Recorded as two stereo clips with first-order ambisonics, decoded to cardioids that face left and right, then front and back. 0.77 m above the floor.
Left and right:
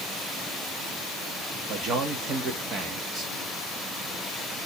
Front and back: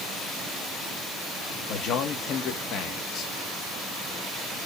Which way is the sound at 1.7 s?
40° right.